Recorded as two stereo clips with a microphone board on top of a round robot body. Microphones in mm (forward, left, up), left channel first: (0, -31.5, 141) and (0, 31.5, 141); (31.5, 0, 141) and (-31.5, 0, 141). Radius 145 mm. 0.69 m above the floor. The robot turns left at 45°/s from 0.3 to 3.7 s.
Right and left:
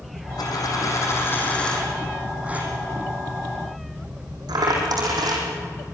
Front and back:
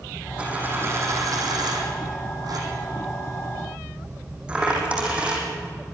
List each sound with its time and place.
0.4 s a dropped coin: 105° right, 4.5 m; by 5.5 s 105° left, 4.5 m